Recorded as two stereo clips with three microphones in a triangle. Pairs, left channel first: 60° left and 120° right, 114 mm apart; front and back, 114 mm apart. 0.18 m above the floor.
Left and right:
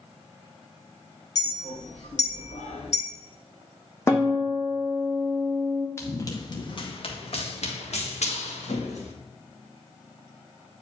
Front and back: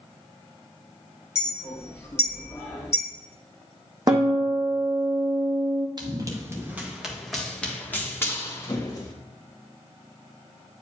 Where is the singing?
I don't hear singing.